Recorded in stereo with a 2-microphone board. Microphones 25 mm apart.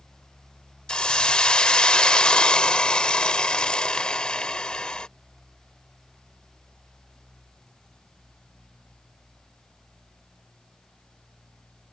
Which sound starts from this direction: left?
A hiss, at 0.9 s.